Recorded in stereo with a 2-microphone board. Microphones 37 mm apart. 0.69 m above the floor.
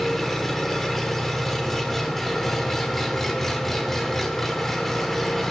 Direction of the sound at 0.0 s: 5° left (ahead or behind).